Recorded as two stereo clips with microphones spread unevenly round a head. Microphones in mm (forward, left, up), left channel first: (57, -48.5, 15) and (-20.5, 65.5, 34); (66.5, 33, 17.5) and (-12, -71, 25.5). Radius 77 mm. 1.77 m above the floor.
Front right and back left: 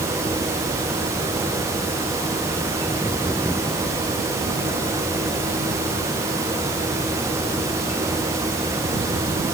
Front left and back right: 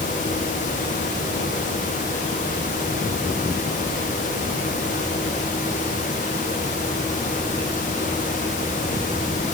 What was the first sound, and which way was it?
Only background noise.